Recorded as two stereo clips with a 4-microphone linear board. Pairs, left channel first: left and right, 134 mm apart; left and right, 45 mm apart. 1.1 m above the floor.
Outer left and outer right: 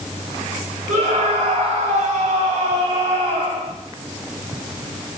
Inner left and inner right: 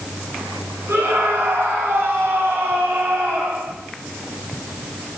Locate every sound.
0.9 s a scream: 75° right (ahead or behind), 5.5 m; by 3.7 s 80° right, 6 m